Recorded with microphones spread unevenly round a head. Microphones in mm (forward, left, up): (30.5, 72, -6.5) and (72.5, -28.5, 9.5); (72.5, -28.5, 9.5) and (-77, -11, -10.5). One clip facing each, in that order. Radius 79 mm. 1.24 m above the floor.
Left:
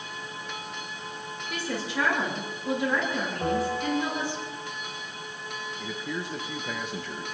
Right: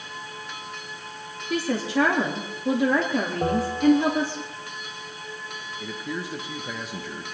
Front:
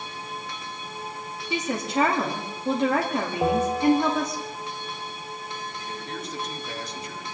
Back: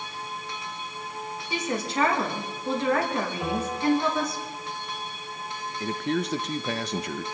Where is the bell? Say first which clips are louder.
Right 7 dB, front 7 dB; 35° right, 1.2 m.